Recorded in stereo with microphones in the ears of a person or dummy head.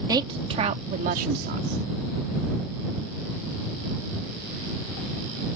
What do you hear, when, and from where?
0.1 s a woman speaking: 20° right (ahead or behind); by 1.8 s 65° right (ahead or behind)